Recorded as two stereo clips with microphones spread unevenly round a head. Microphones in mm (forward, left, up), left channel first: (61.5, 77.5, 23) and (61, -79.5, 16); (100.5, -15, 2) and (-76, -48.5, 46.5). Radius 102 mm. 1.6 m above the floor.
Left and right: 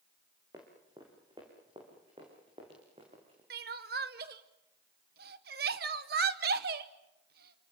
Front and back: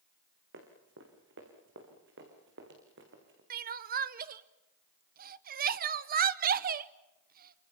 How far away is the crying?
About 0.9 m.